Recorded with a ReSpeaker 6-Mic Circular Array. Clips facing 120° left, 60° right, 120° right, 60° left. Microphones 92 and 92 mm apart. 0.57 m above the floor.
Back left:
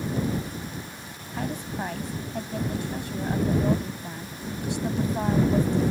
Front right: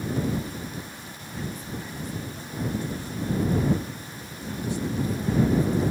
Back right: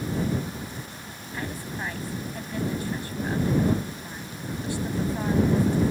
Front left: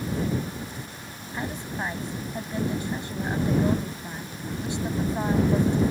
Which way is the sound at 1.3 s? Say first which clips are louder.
Back left 4 dB, front left 2 dB; 130° left.